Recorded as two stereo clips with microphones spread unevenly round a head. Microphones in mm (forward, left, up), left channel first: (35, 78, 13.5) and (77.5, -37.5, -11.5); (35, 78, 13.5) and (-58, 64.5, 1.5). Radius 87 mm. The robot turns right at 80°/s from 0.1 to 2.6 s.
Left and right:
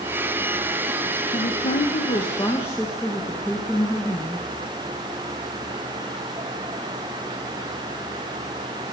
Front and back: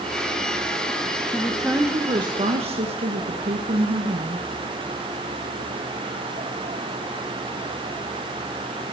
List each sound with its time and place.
1.3 s a woman speaking: 75° left, 1.2 m; by 4.5 s 175° right, 1.2 m